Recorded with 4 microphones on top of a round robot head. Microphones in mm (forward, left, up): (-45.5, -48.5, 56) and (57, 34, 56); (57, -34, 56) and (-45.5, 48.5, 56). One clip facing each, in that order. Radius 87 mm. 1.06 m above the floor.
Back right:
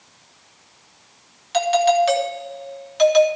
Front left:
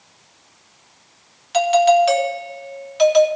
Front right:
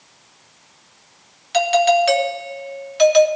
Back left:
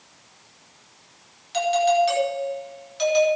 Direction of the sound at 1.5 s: 45° right.